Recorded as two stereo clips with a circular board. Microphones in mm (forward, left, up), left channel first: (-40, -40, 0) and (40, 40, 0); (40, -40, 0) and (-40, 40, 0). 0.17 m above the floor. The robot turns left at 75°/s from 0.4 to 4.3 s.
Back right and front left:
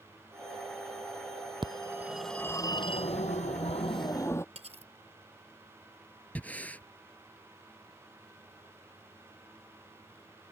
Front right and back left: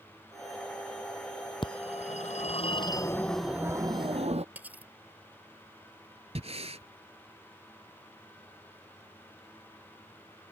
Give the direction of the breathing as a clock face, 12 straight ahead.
7 o'clock.